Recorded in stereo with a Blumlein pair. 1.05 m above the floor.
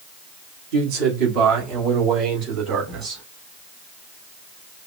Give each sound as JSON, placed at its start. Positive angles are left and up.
{"t": 0.7, "sound": "a man speaking", "azimuth_deg": -45, "distance_m": 2.5}